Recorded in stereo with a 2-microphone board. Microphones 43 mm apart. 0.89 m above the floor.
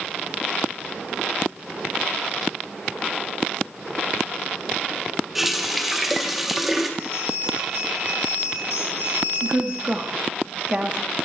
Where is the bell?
85° right, 1.8 m.